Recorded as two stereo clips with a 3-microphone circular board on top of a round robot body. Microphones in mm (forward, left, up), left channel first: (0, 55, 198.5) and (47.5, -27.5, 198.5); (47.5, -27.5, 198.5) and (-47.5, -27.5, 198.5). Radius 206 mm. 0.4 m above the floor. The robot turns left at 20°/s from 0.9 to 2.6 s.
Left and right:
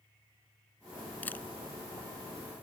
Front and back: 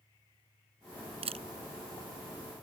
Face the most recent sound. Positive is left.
turn(degrees=165)